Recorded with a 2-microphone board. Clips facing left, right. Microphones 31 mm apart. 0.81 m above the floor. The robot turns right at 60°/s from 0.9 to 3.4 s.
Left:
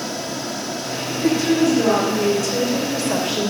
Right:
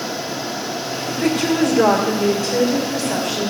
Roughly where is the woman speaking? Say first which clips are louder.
Even; behind right.